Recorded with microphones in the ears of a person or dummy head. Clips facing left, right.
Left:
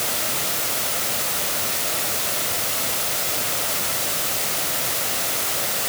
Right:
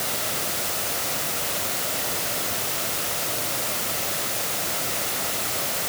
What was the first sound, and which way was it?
Only background noise.